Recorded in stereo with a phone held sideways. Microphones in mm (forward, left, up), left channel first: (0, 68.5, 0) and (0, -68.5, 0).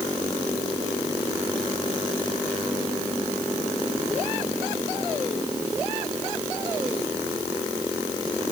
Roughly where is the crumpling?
No crumpling in this recording.